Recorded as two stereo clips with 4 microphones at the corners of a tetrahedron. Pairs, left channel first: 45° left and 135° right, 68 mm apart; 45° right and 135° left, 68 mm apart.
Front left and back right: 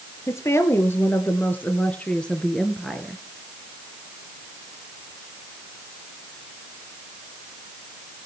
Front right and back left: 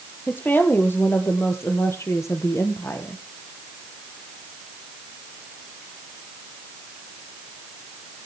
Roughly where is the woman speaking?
Ahead.